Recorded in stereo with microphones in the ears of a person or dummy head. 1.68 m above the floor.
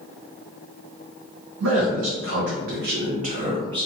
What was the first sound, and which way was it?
A man speaking, 75° right (ahead or behind).